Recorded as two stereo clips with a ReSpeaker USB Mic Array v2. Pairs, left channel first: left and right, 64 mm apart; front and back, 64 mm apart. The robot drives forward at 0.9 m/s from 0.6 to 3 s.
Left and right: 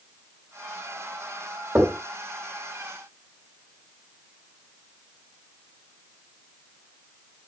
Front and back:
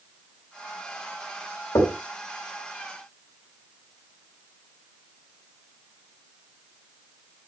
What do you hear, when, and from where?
1.8 s knocking: 20° right, 2.5 m; by 2.0 s 25° right, 2 m